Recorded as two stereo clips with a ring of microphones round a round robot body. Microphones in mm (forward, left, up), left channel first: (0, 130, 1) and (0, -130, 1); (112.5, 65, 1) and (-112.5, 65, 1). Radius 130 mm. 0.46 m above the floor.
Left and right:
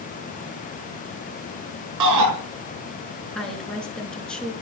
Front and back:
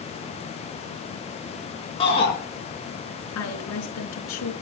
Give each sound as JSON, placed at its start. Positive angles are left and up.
{"t": 2.0, "sound": "a shout", "azimuth_deg": -70, "distance_m": 6.5}
{"t": 3.4, "sound": "a woman speaking", "azimuth_deg": 5, "distance_m": 5.5}